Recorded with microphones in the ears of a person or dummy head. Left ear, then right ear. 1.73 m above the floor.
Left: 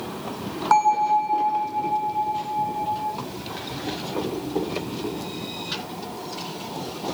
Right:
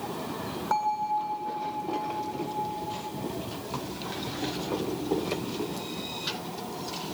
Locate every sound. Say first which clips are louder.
0.7 s a bell: left 9 dB; 30° left (ahead or behind), 1.3 m